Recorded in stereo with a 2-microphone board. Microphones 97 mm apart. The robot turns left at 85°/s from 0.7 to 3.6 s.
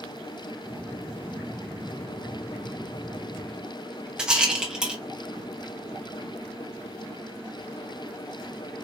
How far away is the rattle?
About 1.3 m.